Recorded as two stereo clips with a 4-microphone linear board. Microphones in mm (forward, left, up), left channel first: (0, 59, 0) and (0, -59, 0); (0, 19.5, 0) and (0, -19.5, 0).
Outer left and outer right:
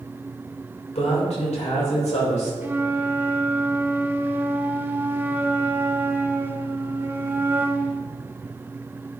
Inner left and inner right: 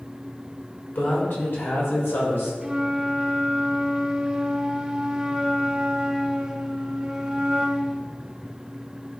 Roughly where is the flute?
Centre.